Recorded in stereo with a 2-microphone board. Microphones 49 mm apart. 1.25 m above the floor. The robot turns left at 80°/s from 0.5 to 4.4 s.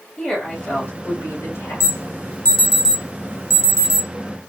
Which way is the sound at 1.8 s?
70° left (ahead or behind).